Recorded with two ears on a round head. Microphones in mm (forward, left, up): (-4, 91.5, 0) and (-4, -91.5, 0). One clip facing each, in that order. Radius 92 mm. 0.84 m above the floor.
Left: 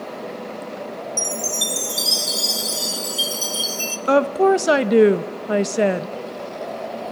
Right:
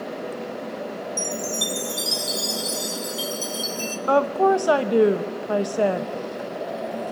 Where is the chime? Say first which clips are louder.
Even; 5° left (ahead or behind), 0.9 m.